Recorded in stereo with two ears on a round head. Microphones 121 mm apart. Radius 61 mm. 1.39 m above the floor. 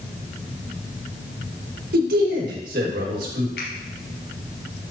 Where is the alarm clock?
I don't hear an alarm clock.